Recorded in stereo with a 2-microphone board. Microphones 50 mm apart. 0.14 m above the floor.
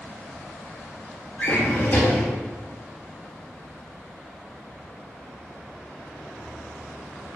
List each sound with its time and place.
1.4 s a drawer: 35° left (ahead or behind), 1.3 m